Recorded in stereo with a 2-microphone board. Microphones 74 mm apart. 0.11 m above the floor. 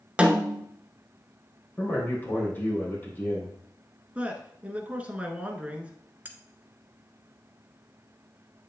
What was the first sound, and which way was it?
A snare drum, 15° right (ahead or behind).